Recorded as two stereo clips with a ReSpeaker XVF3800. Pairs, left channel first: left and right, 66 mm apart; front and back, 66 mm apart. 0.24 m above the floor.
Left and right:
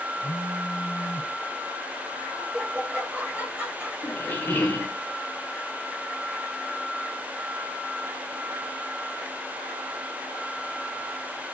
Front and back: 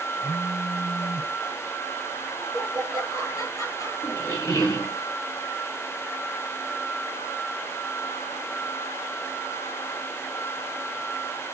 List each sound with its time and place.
0.2 s a phone buzzing: 5° left, 4.5 m
2.4 s laughter: 25° right, 5.5 m
4.0 s a squeak: 25° left, 1.8 m